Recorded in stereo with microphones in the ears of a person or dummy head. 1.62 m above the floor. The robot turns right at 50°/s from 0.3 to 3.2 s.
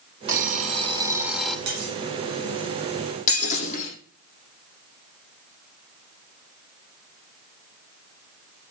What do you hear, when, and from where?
0.3 s an alarm clock: 55° right, 3 m; by 1.6 s 5° left, 3 m
1.7 s cutlery clinking: 65° right (ahead or behind), 5.5 m; by 2.0 s 50° right (ahead or behind), 5.5 m
3.3 s breaking glass: 45° left (ahead or behind), 9 m